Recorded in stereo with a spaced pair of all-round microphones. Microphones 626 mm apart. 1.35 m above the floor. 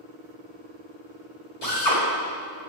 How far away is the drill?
About 2.5 m.